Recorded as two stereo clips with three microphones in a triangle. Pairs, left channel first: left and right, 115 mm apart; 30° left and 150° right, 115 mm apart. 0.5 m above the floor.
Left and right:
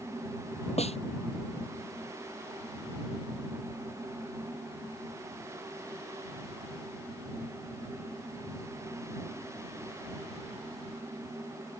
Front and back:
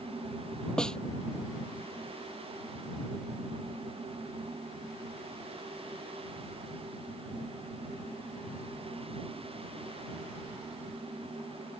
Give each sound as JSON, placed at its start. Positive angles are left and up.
{"t": 0.8, "sound": "a snare drum", "azimuth_deg": 115}